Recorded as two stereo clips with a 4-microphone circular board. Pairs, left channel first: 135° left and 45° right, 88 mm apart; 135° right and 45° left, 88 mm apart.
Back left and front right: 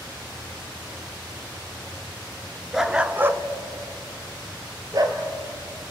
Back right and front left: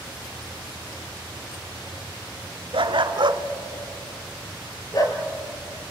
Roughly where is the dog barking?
Ahead left.